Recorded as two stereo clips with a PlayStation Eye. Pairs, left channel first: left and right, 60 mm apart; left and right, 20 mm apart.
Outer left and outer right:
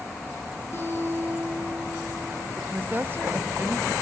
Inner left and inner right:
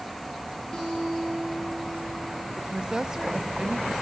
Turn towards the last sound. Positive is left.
turn(degrees=-40)  # may be behind; listen again after turning